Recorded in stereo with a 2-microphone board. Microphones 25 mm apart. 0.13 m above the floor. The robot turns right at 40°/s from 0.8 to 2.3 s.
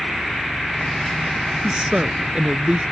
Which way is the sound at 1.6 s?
30° right (ahead or behind).